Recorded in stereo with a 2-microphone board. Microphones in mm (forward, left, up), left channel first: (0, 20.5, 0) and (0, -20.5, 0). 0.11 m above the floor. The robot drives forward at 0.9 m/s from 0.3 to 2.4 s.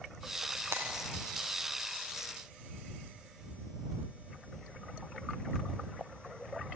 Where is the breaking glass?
80° right, 7.5 m.